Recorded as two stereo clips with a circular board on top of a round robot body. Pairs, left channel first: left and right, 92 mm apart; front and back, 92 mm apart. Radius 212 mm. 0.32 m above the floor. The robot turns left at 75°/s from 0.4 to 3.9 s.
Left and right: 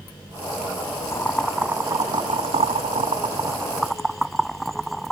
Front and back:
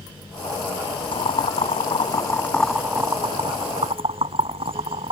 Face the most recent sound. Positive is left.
turn(degrees=180)